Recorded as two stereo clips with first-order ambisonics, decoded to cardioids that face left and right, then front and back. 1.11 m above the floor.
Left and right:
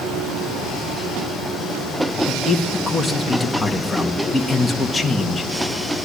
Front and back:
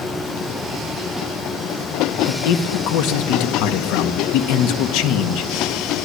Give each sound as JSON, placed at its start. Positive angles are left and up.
{"t": 2.3, "sound": "a man speaking", "azimuth_deg": 10, "distance_m": 2.0}